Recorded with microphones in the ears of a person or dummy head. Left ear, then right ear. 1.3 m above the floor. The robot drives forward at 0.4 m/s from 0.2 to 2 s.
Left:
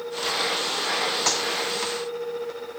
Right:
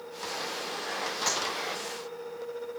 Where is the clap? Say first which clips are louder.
Left 3 dB; 5° right (ahead or behind), 7 m.